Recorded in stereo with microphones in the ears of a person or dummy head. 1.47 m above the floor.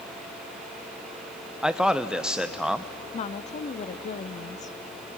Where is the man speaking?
5° right (ahead or behind), 0.8 m.